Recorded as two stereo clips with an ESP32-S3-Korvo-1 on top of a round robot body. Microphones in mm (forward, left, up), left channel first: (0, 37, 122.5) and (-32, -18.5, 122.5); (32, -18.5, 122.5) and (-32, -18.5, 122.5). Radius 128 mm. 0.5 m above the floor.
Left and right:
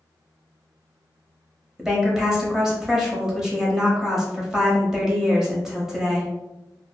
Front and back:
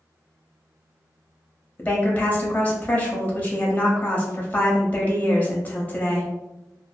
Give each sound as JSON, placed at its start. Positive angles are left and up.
{"t": 1.8, "sound": "a woman speaking", "azimuth_deg": -40, "distance_m": 0.8}